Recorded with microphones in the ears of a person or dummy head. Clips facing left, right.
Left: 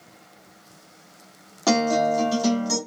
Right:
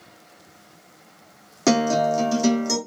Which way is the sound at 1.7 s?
35° right (ahead or behind).